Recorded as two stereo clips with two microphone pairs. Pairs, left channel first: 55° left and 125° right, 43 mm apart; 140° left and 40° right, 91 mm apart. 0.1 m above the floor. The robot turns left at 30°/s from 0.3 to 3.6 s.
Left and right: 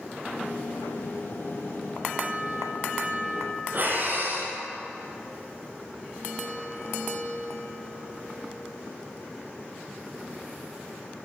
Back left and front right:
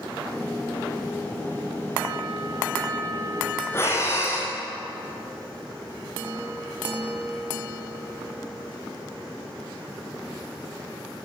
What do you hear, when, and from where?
3.7 s breathing: 160° right, 5 m